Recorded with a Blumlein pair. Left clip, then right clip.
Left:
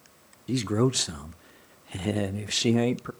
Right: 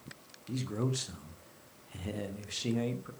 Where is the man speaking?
60° left, 0.8 m.